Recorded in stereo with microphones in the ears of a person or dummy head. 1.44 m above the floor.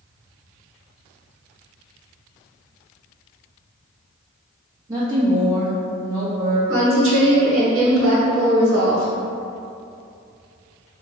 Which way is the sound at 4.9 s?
20° right (ahead or behind).